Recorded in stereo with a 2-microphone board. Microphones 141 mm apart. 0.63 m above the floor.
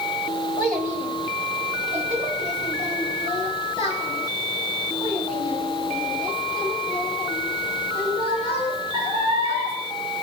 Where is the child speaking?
70° right (ahead or behind), 1.6 m; by 9.7 s 55° right (ahead or behind), 10.5 m.